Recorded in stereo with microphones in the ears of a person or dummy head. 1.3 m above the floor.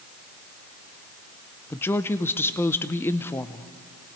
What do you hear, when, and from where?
1.7 s a woman speaking: 10° left (ahead or behind), 0.7 m